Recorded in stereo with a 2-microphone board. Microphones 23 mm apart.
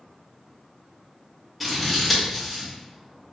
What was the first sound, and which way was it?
Scissors, 5° left (ahead or behind).